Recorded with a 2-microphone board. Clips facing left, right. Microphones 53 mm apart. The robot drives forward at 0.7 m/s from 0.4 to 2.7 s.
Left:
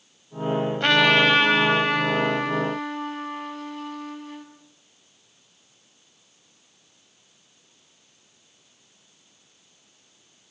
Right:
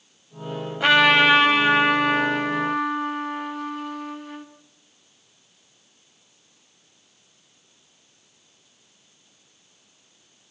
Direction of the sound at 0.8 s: 10° right (ahead or behind).